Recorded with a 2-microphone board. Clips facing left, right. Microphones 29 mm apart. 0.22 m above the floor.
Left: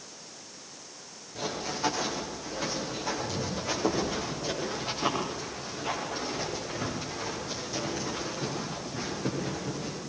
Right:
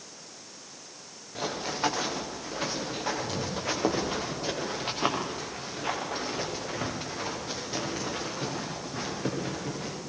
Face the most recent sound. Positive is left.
turn(degrees=-50)  # may be behind; listen again after turning